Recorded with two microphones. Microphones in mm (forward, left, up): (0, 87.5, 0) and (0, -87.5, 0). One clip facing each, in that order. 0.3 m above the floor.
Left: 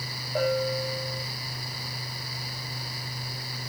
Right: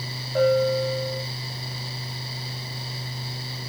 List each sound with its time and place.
0.3 s a bell: 5° left (ahead or behind), 8.5 m